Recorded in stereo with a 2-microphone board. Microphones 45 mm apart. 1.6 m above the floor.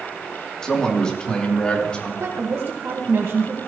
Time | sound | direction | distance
0.6 | a man speaking | 15° left (ahead or behind) | 3 m
2.2 | a woman speaking | 75° right (ahead or behind) | 1.7 m